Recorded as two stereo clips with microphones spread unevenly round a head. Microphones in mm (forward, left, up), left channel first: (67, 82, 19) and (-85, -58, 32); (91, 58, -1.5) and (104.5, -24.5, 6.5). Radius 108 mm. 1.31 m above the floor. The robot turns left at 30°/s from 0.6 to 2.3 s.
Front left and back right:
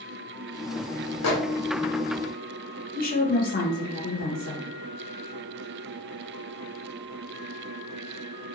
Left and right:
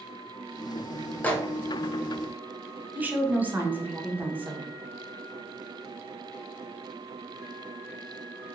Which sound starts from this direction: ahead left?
A microwave, at 1.2 s.